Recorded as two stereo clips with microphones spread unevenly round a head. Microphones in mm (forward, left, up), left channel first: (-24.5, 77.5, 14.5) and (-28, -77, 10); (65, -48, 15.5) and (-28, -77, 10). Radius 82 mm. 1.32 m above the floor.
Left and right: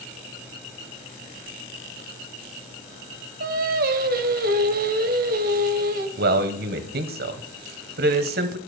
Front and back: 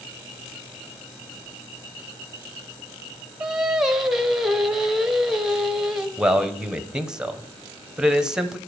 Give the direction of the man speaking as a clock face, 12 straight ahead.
3 o'clock.